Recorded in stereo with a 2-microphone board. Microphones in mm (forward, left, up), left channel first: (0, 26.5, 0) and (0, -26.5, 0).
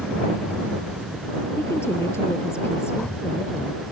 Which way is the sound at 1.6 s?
60° left (ahead or behind).